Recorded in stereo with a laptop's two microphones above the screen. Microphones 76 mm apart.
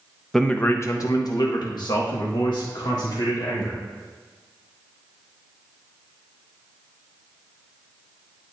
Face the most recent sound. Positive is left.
turn(degrees=80)